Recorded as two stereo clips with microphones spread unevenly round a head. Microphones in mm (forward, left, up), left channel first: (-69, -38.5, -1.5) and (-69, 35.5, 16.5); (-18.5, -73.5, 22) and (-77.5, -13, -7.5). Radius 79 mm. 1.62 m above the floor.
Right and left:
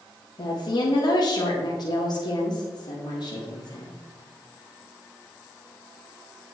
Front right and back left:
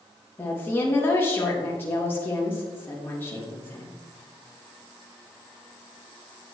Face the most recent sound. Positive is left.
turn(degrees=-110)